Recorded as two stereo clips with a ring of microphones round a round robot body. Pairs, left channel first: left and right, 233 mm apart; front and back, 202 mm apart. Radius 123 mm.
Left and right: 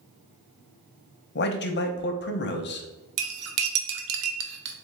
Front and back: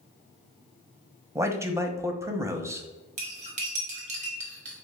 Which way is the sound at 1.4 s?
110° left.